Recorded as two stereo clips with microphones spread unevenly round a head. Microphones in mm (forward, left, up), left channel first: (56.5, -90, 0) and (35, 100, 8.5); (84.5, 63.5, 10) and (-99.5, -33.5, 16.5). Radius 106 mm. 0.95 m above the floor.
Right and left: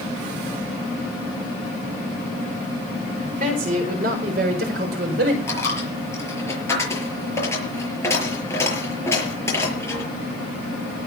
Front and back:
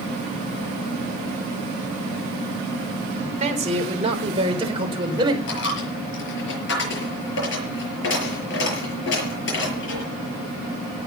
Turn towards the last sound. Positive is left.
turn(degrees=-10)